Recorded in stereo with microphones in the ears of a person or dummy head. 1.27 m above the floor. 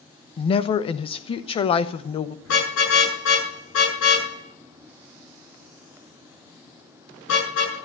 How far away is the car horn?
About 8 m.